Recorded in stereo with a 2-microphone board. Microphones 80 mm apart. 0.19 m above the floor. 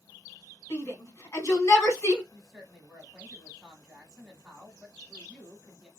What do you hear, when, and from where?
0.7 s a shout: 40° left (ahead or behind), 1.4 m
2.3 s a woman speaking: centre (ahead or behind), 1.1 m